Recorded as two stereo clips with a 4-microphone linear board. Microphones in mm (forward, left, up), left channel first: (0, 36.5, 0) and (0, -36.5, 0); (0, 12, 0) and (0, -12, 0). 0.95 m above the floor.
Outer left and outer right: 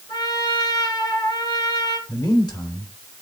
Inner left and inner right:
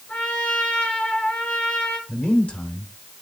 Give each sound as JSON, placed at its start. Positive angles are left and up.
{"t": 0.1, "sound": "a trumpet", "side_deg": 75, "distance_m": 3.5}
{"t": 2.1, "sound": "a man speaking", "side_deg": 70, "distance_m": 2.5}